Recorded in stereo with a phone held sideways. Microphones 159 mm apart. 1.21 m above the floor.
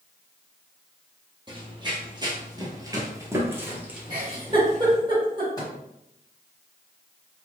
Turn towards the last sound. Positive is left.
turn(degrees=20)  # may be behind; listen again after turning